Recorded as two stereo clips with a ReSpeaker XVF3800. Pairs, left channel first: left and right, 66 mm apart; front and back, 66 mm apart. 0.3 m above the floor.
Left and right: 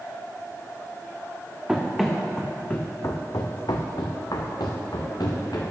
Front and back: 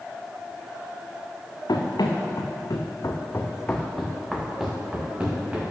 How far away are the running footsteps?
About 1.9 m.